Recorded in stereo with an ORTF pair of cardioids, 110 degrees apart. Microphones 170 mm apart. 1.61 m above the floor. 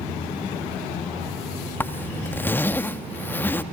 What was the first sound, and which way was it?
A zipper, 10° left.